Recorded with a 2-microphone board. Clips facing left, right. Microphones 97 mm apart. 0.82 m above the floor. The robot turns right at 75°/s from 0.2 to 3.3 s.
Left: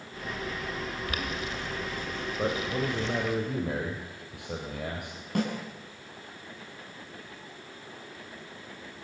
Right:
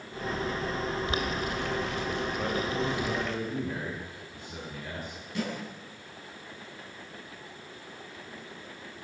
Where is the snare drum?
60° left (ahead or behind), 7.5 m.